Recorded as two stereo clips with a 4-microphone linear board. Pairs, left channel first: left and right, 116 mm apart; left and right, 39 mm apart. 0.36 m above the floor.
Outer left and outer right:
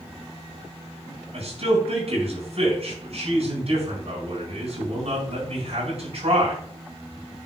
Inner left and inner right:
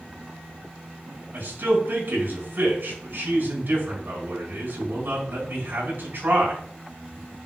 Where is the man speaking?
65° right (ahead or behind), 4.5 m.